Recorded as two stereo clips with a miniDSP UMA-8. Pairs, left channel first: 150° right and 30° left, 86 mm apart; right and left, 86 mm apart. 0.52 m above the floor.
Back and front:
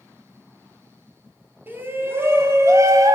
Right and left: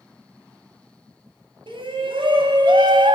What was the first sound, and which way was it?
A shout, 95° left.